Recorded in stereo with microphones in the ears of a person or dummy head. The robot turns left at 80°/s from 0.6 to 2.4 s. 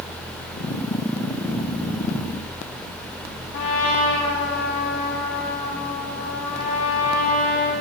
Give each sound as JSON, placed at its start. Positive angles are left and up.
{"t": 3.5, "sound": "a trumpet", "side_deg": 50, "distance_m": 2.5}